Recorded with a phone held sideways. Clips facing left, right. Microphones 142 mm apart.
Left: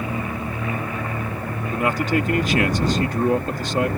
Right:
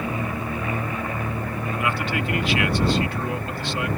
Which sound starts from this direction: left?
A man speaking, at 1.7 s.